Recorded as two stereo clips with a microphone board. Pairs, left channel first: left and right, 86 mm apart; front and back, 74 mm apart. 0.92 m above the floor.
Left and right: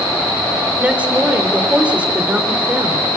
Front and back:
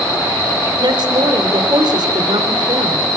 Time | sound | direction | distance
0.8 | a woman speaking | 165° right | 3 m